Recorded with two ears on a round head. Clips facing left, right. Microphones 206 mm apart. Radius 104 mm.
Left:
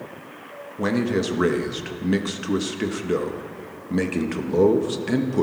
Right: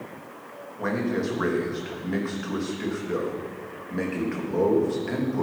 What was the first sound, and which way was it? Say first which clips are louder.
A man speaking: left 4 dB; 45° left (ahead or behind).